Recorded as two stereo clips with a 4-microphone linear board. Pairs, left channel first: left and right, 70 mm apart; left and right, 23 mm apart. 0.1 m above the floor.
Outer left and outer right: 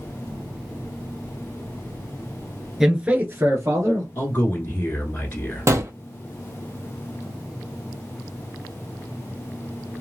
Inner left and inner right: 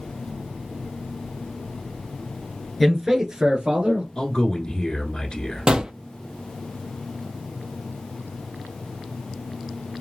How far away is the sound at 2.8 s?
About 1.3 m.